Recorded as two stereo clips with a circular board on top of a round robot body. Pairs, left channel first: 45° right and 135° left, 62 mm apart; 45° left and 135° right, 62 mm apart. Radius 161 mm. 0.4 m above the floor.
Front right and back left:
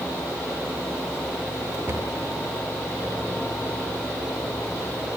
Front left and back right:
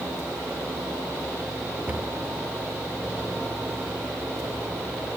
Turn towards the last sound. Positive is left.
turn(degrees=165)